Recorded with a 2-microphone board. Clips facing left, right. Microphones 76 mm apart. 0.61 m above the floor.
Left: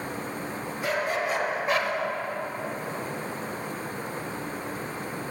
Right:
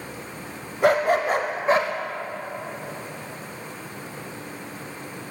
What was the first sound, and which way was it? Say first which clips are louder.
A dog barking: right 9 dB; 65° right (ahead or behind).